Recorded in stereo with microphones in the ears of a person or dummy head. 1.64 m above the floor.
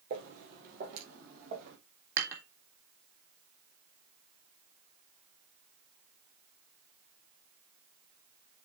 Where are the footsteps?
45° right (ahead or behind), 2.5 m; by 1.8 s 50° right (ahead or behind), 3.5 m.